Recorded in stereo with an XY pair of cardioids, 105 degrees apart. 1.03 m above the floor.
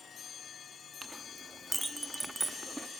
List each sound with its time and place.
1.0 s a clink: 10° right, 0.9 m